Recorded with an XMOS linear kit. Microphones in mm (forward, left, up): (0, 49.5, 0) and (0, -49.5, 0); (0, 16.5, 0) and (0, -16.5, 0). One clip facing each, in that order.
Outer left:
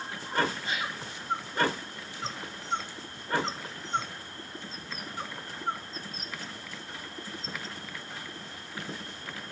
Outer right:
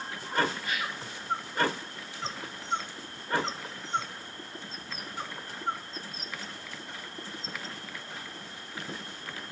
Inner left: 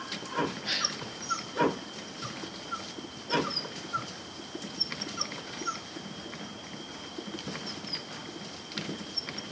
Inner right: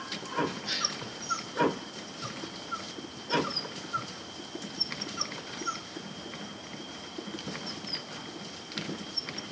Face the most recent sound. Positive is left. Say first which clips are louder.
# even, inner left 1 dB
turn(degrees=25)  # may be behind; listen again after turning